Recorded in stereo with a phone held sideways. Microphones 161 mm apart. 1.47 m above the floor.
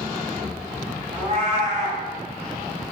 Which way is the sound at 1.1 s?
40° right (ahead or behind).